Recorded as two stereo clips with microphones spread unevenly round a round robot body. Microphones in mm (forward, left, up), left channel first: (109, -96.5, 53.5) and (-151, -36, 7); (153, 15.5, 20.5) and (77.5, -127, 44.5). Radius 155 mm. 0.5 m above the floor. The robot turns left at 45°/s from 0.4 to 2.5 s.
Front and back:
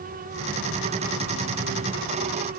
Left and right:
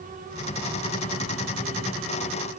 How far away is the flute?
No flute in this recording.